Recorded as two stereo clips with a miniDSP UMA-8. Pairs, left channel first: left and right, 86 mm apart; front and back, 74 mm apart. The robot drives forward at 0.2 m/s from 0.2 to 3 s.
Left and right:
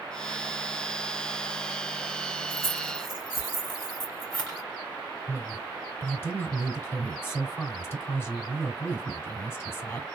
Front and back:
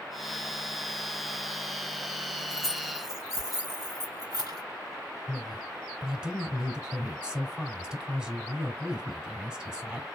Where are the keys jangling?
160° left, 3 m; by 4.6 s 165° left, 3 m.